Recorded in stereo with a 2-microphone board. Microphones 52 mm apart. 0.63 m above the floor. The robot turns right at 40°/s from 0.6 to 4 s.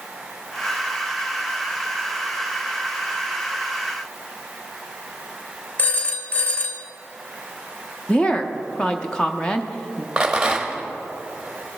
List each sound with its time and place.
5.8 s a phone ringing: 30° left (ahead or behind), 0.7 m
8.1 s a woman speaking: 15° left (ahead or behind), 0.6 m
10.2 s a rattle: 20° right (ahead or behind), 1.0 m